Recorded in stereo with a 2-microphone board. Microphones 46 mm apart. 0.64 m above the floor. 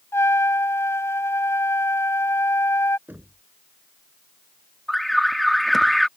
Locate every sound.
0.1 s a trumpet: 80° left
3.1 s knocking: 40° right (ahead or behind)
4.9 s an alarm: 5° left (ahead or behind)